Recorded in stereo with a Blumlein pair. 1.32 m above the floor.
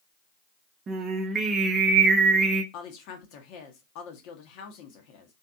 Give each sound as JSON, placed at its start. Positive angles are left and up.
{"t": 0.9, "sound": "singing", "azimuth_deg": -25, "distance_m": 0.5}
{"t": 2.7, "sound": "a woman speaking", "azimuth_deg": 40, "distance_m": 0.7}